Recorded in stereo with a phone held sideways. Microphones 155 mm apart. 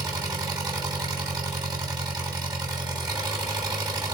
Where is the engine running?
25° right (ahead or behind), 2.5 m.